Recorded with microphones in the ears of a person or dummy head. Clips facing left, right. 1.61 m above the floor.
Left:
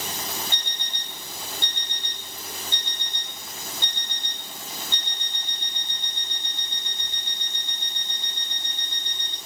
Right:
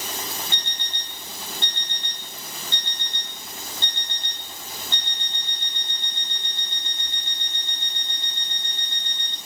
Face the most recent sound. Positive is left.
turn(degrees=15)  # may be behind; listen again after turning